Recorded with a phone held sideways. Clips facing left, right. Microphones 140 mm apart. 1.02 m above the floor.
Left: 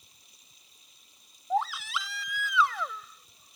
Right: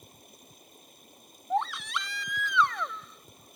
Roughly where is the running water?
Right.